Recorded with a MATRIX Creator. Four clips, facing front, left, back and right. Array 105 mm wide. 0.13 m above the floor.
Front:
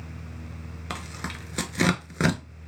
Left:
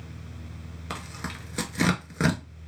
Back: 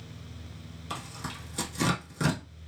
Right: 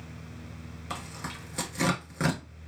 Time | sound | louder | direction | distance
0.9 | tearing paper | left 2 dB, front 2 dB | 20° left | 0.6 m